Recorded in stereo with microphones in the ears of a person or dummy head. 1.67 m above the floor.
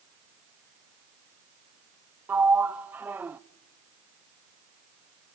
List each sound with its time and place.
2.3 s a sliding door: 5° right (ahead or behind), 0.5 m